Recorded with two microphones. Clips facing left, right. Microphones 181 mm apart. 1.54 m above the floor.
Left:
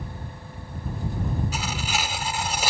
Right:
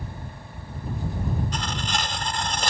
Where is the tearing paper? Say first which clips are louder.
Even; 5° left (ahead or behind).